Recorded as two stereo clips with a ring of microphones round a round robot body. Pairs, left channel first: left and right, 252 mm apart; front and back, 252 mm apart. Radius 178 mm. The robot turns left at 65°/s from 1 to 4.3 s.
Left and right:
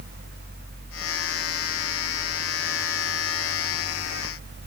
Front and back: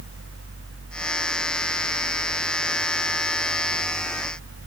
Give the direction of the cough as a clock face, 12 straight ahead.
I don't hear a cough.